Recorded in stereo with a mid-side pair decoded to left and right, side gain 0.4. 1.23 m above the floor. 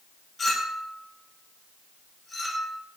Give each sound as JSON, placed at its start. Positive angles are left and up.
{"t": 0.4, "sound": "a clink", "azimuth_deg": 35, "distance_m": 1.1}